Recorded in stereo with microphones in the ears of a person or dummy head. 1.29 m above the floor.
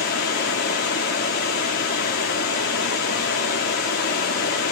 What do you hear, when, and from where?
0.0 s running water: 45° left (ahead or behind), 1.0 m